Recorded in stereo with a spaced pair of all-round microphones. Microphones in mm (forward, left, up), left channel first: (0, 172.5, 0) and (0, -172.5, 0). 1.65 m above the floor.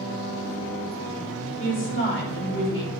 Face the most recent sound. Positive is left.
turn(degrees=35)  # may be behind; listen again after turning